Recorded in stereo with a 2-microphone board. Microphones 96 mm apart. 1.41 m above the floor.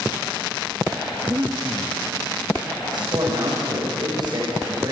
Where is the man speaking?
55° right (ahead or behind), 6.5 m.